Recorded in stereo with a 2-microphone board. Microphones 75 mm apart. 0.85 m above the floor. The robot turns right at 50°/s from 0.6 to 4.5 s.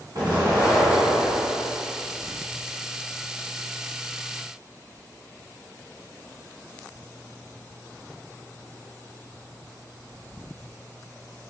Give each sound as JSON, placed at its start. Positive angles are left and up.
{"t": 0.1, "sound": "an explosion", "azimuth_deg": -110, "distance_m": 1.6}